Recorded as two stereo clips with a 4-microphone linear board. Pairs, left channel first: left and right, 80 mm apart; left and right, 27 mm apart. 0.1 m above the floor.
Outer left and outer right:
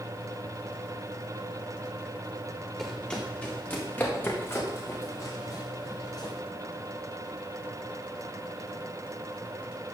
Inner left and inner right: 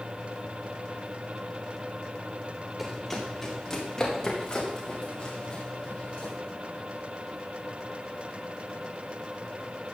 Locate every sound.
2.8 s running footsteps: 5° left (ahead or behind), 3 m; by 6.3 s 50° left (ahead or behind), 5 m